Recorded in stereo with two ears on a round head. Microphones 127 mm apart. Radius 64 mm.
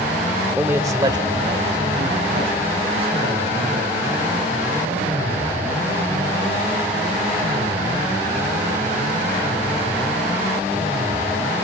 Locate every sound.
0.6 s a man speaking: 10° right (ahead or behind), 0.8 m; by 5.5 s 45° right (ahead or behind), 7 m